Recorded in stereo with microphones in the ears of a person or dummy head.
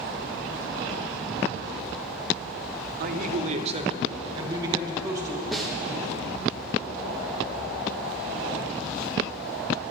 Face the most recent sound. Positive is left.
turn(degrees=5)  # may be behind; listen again after turning